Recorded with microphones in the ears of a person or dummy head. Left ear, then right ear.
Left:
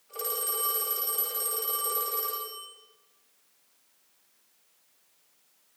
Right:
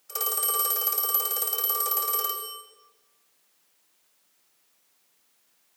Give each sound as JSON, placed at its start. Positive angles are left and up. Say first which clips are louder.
{"t": 0.1, "sound": "a phone ringing", "louder": "right 4 dB", "side_deg": -75, "distance_m": 7.0}